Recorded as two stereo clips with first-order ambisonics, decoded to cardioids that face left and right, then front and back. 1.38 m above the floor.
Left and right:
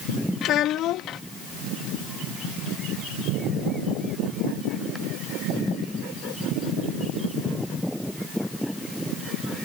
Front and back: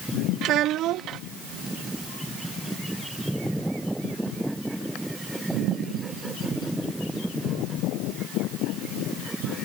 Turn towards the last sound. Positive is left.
turn(degrees=135)